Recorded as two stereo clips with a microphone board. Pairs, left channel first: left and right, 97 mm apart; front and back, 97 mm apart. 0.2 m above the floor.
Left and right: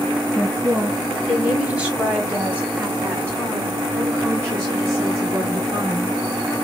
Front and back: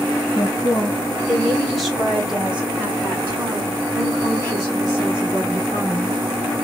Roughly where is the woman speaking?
Ahead.